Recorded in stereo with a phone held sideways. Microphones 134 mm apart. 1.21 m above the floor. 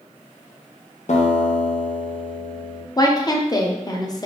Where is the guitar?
60° left (ahead or behind), 0.6 m.